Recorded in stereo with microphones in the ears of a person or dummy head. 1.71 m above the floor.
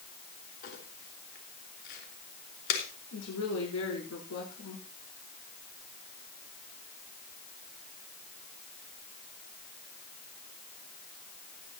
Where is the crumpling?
55° left (ahead or behind), 3.5 m.